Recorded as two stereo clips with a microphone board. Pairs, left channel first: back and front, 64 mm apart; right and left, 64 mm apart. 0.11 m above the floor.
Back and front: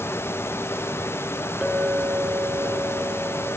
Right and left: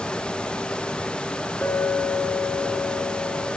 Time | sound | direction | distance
1.6 | a clink | 70° right | 1.0 m